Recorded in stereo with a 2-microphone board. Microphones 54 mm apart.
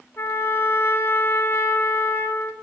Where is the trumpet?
45° left (ahead or behind), 0.8 m.